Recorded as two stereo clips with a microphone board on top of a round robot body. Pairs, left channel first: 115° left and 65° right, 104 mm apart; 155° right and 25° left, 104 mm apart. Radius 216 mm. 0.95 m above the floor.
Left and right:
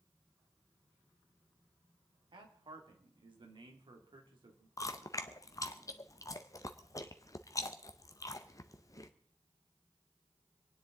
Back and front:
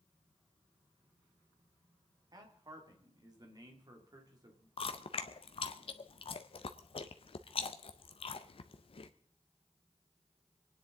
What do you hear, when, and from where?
2.3 s a man speaking: 30° right, 2.5 m
4.8 s chewing: 170° left, 0.6 m